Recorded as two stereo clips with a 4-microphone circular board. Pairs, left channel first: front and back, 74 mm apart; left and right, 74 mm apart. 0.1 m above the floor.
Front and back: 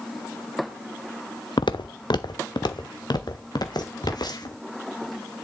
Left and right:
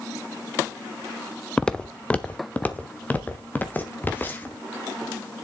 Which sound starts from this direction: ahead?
Footsteps, at 1.6 s.